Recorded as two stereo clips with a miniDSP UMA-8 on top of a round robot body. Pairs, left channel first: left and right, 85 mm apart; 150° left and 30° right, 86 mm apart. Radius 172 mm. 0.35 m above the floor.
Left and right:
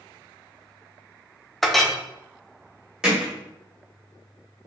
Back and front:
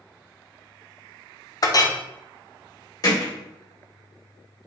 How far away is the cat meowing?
I don't hear a cat meowing.